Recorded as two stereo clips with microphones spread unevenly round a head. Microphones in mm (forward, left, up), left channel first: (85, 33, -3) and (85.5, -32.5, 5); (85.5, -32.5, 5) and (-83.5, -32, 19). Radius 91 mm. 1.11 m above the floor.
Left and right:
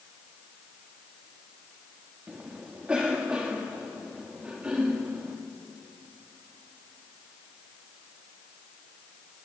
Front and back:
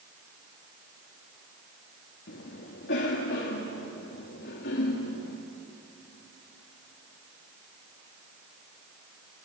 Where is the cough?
15° right, 2 m.